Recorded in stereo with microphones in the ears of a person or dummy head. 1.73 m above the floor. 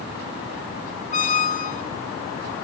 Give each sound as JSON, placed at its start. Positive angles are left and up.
{"t": 1.1, "sound": "a squeak", "side_deg": 30, "distance_m": 1.0}